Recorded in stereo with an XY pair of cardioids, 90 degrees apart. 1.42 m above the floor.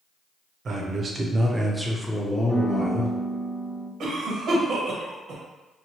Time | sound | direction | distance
0.7 | a man speaking | 55° right | 0.8 m
2.5 | a piano | 30° left | 1.1 m
4.0 | a cough | 70° right | 1.1 m